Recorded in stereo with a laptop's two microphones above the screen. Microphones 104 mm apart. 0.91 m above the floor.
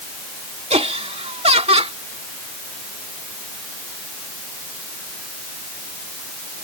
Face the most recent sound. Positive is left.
turn(degrees=-75)  # may be behind; listen again after turning